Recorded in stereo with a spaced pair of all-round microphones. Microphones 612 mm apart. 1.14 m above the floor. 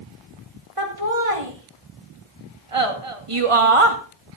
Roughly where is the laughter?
Right.